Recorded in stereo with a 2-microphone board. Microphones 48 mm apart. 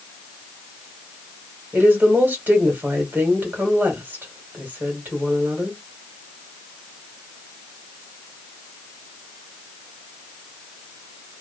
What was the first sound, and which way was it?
A woman speaking, 40° right (ahead or behind).